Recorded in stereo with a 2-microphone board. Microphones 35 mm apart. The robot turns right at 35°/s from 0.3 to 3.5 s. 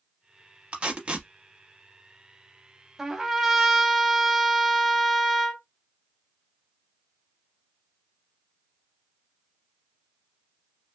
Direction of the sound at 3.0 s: 10° right (ahead or behind).